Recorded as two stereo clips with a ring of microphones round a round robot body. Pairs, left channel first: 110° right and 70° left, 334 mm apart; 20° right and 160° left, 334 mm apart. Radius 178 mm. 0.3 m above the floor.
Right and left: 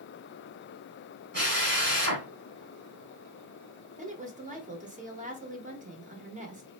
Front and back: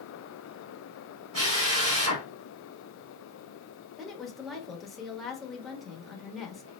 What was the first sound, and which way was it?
A drill, 120° left.